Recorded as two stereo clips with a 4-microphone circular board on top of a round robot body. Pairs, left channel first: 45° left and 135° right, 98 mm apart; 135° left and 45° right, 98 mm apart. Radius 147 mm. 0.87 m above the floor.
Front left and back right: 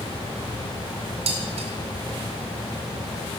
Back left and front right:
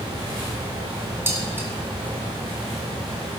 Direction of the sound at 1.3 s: 115° right.